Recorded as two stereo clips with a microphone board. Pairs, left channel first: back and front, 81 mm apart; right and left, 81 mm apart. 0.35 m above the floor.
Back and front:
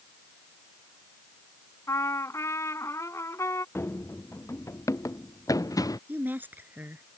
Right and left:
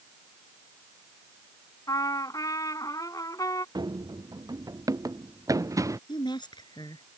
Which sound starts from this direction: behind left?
Running footsteps, at 3.8 s.